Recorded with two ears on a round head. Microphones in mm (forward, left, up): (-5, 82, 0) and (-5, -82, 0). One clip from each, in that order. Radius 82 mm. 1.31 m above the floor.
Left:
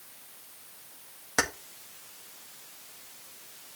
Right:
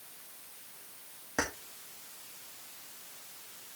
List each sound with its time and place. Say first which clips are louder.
1.4 s keys jangling: left 6 dB; 65° left (ahead or behind), 1.6 m